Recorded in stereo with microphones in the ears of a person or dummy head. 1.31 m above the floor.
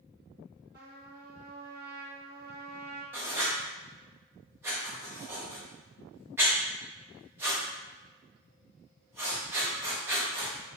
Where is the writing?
15° right (ahead or behind), 0.8 m.